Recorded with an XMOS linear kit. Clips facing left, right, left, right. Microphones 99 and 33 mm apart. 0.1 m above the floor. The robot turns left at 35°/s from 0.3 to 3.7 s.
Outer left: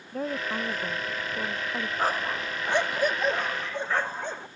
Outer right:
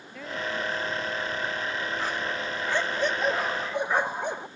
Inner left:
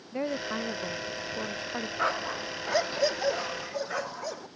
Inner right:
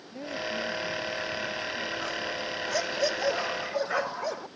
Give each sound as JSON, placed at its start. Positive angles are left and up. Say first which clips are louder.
{"t": 0.1, "sound": "a woman speaking", "louder": "outer left 2 dB, inner left 2 dB", "azimuth_deg": 140}
{"t": 2.0, "sound": "a dog barking", "louder": "outer left 2 dB, inner left 2 dB", "azimuth_deg": 45}